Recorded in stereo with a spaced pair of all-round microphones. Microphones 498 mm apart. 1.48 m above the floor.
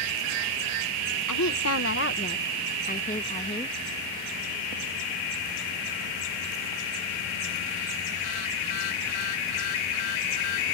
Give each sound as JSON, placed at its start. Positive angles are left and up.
{"t": 1.3, "sound": "a woman speaking", "side_deg": 35}